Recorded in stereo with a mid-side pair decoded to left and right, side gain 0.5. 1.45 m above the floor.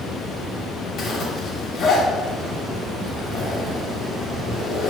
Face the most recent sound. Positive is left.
turn(degrees=45)